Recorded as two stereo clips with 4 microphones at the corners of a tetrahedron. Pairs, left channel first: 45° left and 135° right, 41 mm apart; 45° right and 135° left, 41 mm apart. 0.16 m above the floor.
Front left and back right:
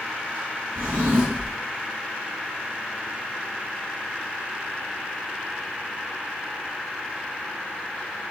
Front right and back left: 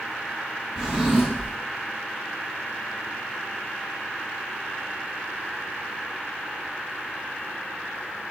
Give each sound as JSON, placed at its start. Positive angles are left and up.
{"t": 0.8, "sound": "a drawer", "azimuth_deg": -145, "distance_m": 1.4}